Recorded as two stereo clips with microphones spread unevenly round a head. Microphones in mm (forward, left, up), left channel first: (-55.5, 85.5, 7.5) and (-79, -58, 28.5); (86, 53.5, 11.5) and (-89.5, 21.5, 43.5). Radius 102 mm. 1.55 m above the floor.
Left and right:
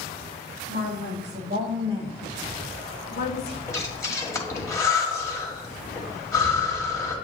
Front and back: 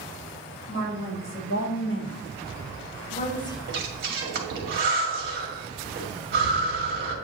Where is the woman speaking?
45° right, 2 m; by 3.6 s 85° left, 0.8 m.